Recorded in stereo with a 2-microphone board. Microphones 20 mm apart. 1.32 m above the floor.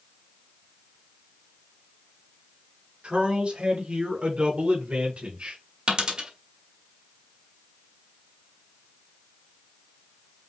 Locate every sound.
3.0 s a man speaking: 60° right (ahead or behind), 2.5 m; by 5.6 s 80° right, 1.4 m
5.9 s a dropped coin: 50° right (ahead or behind), 1.5 m